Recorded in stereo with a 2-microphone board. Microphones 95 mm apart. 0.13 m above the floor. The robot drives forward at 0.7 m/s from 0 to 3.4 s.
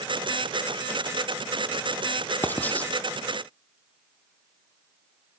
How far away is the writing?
About 1.1 m.